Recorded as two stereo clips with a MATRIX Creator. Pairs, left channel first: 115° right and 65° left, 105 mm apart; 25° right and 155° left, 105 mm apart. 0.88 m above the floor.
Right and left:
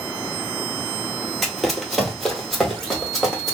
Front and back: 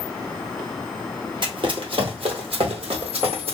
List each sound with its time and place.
1.4 s running footsteps: 160° left, 1.3 m